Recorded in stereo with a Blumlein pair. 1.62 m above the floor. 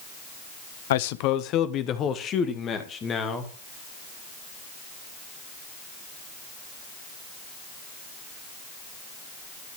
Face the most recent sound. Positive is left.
turn(degrees=20)